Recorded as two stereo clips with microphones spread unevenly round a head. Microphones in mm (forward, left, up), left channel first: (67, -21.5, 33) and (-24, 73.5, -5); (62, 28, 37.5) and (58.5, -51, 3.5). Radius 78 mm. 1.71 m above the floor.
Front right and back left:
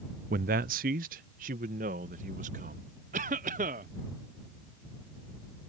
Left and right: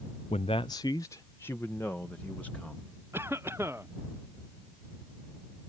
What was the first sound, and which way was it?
A man speaking, 130° left.